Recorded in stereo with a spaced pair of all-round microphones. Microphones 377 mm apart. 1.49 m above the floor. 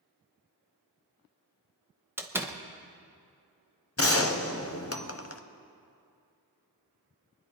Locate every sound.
2.2 s a door slam: 5° right (ahead or behind), 0.9 m
4.0 s a gunshot: 35° left (ahead or behind), 0.9 m